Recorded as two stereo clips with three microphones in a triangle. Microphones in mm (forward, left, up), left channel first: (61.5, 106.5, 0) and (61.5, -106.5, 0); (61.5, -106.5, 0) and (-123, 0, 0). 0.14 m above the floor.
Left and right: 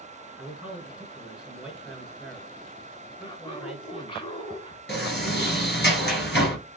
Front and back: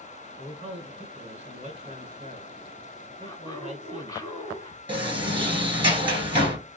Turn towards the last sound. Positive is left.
turn(degrees=90)